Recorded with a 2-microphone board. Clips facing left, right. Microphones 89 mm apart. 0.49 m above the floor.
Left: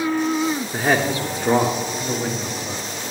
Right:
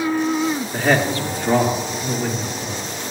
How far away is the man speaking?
About 1.0 m.